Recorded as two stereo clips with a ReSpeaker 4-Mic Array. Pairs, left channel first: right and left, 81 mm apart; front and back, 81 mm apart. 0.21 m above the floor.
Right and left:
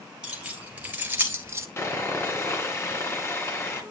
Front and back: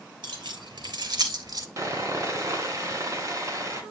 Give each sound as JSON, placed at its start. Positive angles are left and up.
{"t": 0.2, "sound": "keys jangling", "azimuth_deg": 170, "distance_m": 3.5}
{"t": 1.8, "sound": "sawing", "azimuth_deg": -140, "distance_m": 3.0}